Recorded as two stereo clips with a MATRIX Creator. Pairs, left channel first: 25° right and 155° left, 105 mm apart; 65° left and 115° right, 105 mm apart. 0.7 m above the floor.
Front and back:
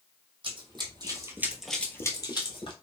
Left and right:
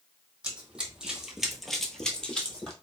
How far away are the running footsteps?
About 1.2 m.